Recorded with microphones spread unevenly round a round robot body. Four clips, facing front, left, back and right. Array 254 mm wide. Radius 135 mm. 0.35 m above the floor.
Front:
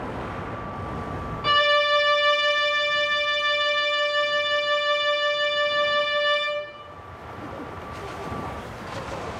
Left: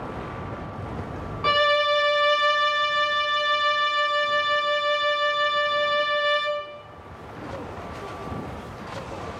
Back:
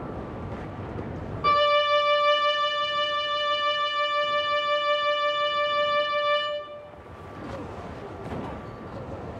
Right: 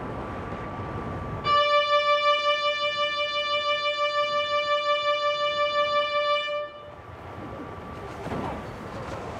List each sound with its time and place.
1.4 s a violin: 95° left, 0.8 m